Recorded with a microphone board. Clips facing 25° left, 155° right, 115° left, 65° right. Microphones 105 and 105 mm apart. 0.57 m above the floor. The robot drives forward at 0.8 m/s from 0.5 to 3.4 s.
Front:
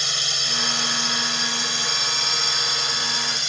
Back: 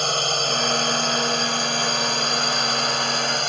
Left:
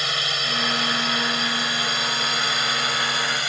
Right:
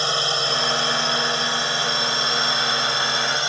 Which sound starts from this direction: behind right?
A drone, at 0.0 s.